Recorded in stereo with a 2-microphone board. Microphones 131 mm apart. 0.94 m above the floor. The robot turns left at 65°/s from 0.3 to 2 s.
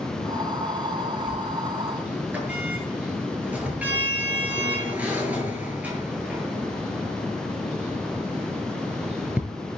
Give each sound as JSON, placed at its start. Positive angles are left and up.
{"t": 1.3, "sound": "a sliding door", "side_deg": 35, "distance_m": 7.5}